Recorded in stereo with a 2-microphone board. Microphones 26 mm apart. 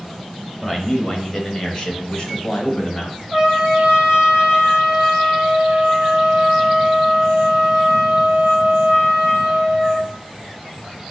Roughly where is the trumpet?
Centre.